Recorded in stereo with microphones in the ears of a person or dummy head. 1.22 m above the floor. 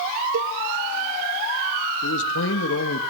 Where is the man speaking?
70° left (ahead or behind), 2 m.